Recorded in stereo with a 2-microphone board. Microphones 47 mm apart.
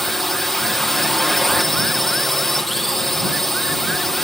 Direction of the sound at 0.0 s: 5° left (ahead or behind).